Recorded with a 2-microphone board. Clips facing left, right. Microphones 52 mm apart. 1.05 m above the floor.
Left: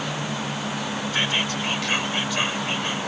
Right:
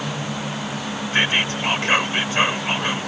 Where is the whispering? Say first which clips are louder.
Right 6 dB; 35° right (ahead or behind).